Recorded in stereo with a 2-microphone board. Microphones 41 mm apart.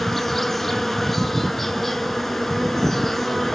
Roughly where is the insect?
Centre.